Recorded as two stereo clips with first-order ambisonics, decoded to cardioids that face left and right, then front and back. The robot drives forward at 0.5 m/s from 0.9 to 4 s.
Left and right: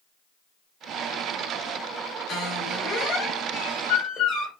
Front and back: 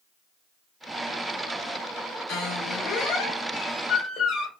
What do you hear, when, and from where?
2.3 s a squeak: 40° left, 2.5 m; by 4.5 s 60° left, 1.9 m